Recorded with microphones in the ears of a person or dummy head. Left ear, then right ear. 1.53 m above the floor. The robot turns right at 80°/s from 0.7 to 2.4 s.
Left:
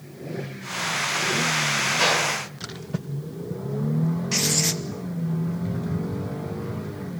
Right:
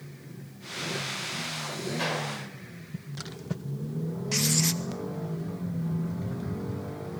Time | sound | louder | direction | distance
2.0 | a gunshot | left 8 dB | 15° left | 4.5 m
4.3 | writing | left 4 dB | centre (ahead or behind) | 0.8 m